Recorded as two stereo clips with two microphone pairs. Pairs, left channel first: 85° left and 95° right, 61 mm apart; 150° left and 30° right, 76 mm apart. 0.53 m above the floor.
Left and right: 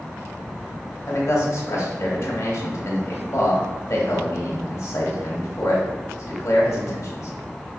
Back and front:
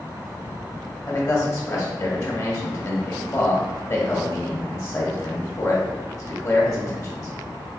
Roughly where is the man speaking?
Left.